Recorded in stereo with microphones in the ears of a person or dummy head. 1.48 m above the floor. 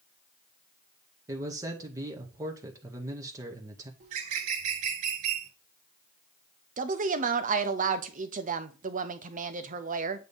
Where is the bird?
50° right (ahead or behind), 0.9 m.